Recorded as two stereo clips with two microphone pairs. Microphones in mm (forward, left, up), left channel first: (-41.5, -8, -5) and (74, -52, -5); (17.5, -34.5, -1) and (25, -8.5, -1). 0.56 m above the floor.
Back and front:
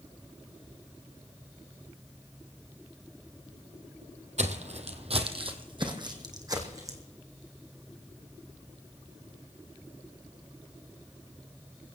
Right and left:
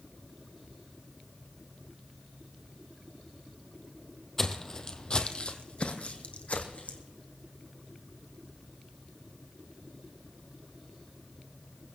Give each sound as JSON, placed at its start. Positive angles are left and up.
{"t": 4.4, "sound": "footsteps", "azimuth_deg": -35, "distance_m": 1.4}